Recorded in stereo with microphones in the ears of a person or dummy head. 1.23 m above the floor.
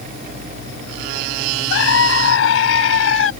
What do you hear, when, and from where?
1.7 s a scream: 75° left (ahead or behind); by 3.3 s 80° left